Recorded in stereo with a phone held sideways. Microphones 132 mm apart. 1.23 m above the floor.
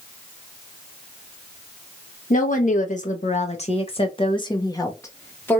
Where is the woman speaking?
85° left, 1.4 m; by 5.6 s 15° left (ahead or behind), 1.5 m.